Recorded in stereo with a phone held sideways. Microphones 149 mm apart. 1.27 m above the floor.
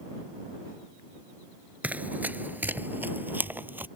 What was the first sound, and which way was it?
Running footsteps, 10° right (ahead or behind).